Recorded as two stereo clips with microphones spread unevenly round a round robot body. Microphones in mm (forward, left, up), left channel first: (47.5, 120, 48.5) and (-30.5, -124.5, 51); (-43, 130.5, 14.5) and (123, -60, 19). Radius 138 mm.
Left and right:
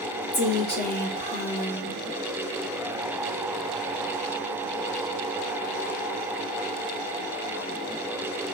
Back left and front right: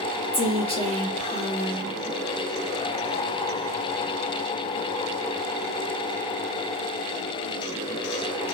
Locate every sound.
0.3 s a woman speaking: 80° left, 1.3 m